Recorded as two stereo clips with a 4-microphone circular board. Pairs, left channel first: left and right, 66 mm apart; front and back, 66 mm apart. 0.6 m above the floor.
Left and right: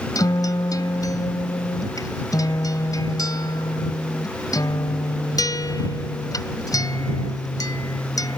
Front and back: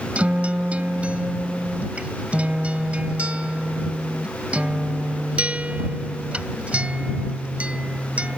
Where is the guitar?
110° left.